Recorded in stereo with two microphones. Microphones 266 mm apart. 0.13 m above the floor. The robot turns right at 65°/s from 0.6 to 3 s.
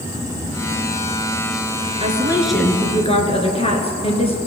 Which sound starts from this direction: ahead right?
A woman speaking, at 2.0 s.